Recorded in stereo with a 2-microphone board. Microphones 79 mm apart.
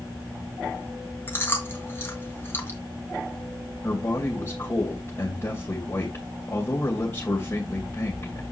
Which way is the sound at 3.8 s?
35° left (ahead or behind).